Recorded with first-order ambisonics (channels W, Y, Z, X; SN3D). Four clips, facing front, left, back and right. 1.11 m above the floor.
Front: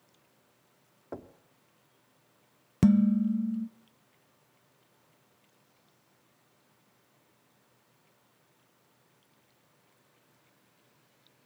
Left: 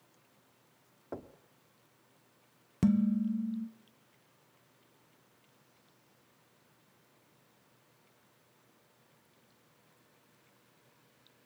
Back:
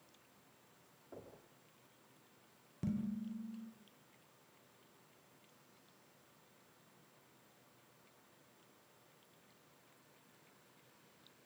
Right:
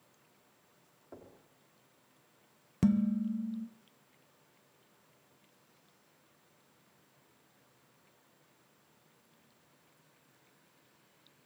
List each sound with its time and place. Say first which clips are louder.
1.1 s knocking: left 8 dB, front 11 dB; 35° left, 1.3 m
2.8 s dishes clattering: left 1 dB, front 18 dB; straight ahead, 0.8 m